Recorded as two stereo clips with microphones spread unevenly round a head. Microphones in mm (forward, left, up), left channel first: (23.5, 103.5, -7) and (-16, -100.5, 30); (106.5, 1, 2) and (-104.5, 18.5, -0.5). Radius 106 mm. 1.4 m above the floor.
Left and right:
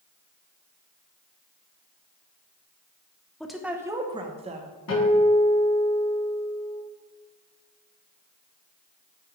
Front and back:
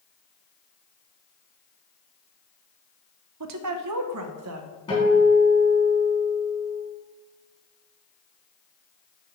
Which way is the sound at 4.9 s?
65° left.